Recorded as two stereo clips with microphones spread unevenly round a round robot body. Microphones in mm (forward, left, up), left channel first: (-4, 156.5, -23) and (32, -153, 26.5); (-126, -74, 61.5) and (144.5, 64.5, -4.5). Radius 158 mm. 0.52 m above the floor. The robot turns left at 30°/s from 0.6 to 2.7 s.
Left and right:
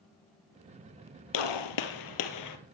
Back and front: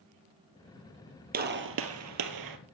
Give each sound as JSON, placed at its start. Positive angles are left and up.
{"t": 1.3, "sound": "a gunshot", "azimuth_deg": 95, "distance_m": 2.0}